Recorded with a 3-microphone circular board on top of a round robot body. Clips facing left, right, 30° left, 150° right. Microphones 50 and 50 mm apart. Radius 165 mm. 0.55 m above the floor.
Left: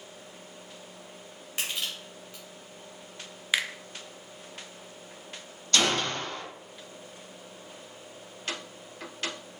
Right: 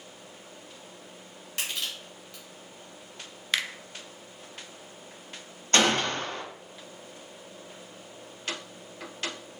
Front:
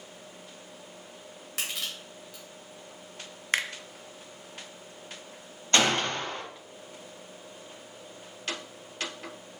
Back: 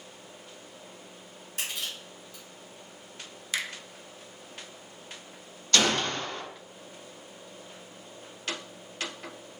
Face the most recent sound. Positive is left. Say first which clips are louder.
# right 2 dB, front 1 dB
turn(degrees=-35)